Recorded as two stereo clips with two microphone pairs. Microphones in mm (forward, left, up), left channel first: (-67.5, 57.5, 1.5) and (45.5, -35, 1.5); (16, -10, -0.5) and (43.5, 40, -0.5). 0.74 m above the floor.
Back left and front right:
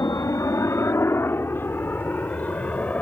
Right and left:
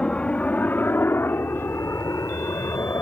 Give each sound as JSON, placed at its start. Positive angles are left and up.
{"t": 0.0, "sound": "a helicopter", "azimuth_deg": 180}